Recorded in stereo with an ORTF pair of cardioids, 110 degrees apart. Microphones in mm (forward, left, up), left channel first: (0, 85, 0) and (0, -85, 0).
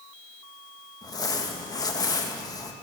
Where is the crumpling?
20° left, 1.7 m.